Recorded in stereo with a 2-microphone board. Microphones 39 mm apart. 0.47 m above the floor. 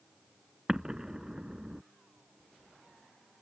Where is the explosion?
15° right (ahead or behind).